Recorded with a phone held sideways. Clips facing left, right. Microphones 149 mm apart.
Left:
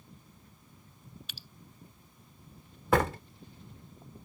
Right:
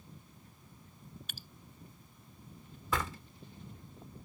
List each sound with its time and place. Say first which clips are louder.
1.3 s dripping: right 1 dB; 50° right (ahead or behind)
2.9 s a door slam: left 10 dB; 65° left (ahead or behind)